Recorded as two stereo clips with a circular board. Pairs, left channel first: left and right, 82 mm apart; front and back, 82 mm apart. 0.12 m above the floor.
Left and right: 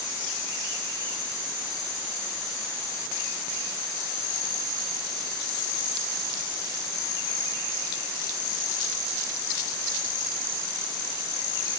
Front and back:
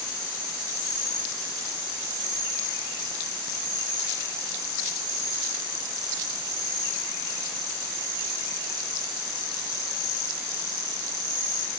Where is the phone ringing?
I don't hear a phone ringing.